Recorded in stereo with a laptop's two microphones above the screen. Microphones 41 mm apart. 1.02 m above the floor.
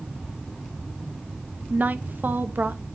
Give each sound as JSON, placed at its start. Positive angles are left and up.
{"t": 1.7, "sound": "a woman speaking", "side_deg": -50, "distance_m": 1.0}